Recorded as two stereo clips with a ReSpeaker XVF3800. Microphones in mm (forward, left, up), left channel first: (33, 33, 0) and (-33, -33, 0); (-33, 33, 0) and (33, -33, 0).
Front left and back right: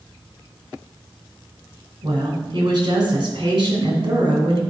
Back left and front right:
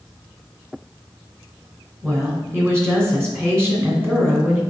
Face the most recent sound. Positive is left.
turn(degrees=-110)